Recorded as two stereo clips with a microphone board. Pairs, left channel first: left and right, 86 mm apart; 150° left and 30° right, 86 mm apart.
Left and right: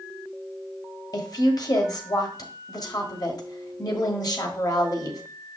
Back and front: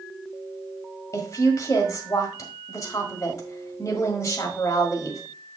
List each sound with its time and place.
1.1 s a woman speaking: 110° left, 1.6 m